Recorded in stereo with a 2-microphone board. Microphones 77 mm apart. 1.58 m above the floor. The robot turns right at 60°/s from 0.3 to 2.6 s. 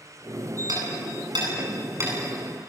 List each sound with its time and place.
0.7 s hammering: 65° right (ahead or behind), 9 m; by 2.1 s 30° right (ahead or behind), 9 m